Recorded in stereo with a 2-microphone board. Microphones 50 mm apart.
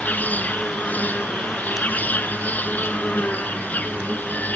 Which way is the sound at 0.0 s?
35° left (ahead or behind).